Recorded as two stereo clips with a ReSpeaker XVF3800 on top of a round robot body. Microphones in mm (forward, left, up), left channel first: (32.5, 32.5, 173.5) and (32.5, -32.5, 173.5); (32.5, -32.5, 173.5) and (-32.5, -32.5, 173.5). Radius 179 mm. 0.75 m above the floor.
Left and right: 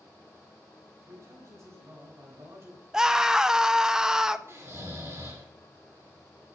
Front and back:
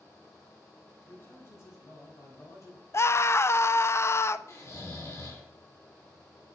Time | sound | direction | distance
1.0 | a man speaking | 55° right | 3.5 m
2.9 | a scream | 15° right | 0.7 m
4.5 | snoring | 45° right | 3 m